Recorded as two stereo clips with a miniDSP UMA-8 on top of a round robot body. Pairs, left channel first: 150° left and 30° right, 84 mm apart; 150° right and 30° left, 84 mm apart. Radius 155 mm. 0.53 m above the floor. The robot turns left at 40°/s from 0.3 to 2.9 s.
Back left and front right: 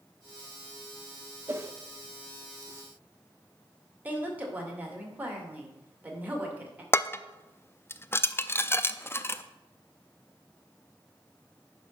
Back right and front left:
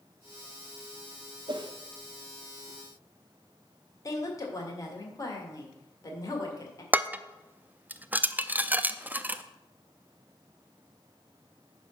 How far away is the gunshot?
No gunshot in this recording.